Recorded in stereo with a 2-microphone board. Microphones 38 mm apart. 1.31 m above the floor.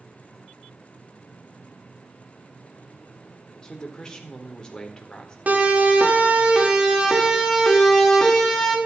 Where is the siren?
45° right (ahead or behind), 4.5 m; by 8.8 s 5° left (ahead or behind), 5.5 m.